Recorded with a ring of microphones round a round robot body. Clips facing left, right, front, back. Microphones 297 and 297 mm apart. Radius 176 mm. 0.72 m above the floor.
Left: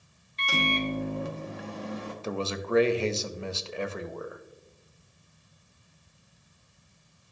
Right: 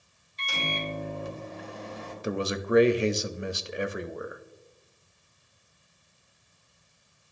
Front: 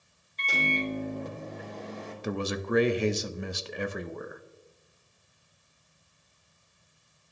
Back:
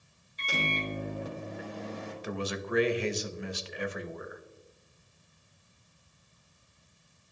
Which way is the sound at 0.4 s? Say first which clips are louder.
Left 6 dB, front 3 dB; 100° left.